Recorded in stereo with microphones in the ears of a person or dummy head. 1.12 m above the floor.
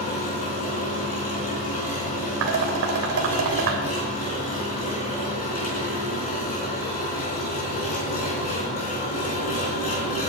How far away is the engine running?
About 3.5 m.